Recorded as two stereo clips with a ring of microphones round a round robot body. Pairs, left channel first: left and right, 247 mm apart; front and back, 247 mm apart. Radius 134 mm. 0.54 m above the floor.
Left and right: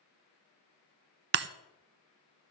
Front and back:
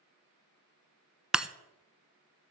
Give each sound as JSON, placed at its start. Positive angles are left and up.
{"t": 1.3, "sound": "breaking glass", "azimuth_deg": -95, "distance_m": 0.5}